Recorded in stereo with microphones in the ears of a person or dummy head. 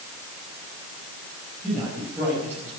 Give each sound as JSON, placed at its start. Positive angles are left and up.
{"t": 1.6, "sound": "a man speaking", "side_deg": 0, "distance_m": 5.5}